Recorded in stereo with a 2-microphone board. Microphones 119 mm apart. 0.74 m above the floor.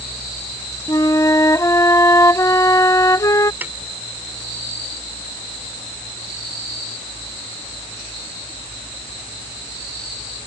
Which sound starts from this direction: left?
A flute, at 0.9 s.